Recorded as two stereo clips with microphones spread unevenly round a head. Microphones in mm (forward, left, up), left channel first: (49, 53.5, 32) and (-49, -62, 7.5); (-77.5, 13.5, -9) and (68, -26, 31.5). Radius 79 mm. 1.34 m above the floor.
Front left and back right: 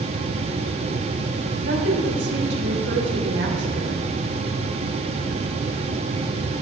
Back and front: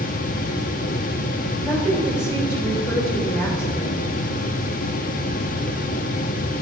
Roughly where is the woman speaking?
Behind right.